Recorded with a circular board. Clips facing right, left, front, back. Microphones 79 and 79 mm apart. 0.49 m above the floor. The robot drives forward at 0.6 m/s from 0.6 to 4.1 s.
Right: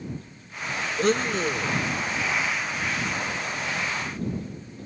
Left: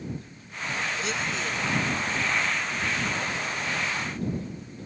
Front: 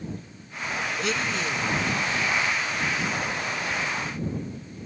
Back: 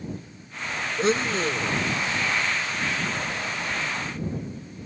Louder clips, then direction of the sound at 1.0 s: Right 7 dB, back 8 dB; 125° right.